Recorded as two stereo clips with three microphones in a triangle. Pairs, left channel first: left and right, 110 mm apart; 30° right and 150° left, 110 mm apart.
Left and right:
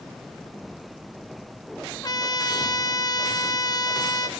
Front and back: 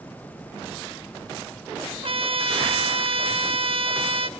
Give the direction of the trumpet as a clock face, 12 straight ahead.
7 o'clock.